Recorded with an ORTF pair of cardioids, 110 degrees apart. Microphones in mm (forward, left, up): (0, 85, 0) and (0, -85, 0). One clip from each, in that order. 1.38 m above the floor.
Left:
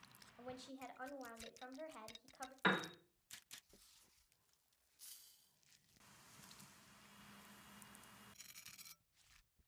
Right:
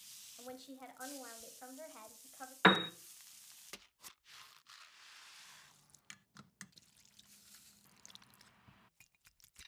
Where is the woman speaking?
5° right, 1.2 m.